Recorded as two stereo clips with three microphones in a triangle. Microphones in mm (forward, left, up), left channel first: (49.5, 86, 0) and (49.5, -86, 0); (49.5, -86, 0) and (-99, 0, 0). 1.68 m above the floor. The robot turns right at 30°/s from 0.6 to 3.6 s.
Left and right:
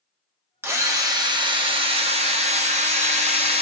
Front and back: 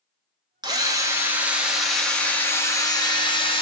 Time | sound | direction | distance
0.6 | a drill | 155° right | 0.9 m